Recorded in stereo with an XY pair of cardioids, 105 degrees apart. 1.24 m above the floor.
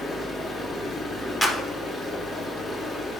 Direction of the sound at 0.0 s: 35° left.